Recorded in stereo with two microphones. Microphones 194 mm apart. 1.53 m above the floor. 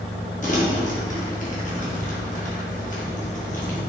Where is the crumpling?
40° left (ahead or behind), 1.8 m.